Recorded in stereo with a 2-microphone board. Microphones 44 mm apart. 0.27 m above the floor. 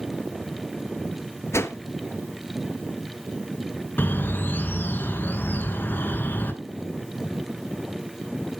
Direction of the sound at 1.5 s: 80° left.